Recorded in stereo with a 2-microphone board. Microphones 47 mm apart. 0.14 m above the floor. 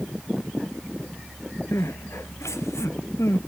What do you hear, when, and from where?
1.7 s crying: 85° left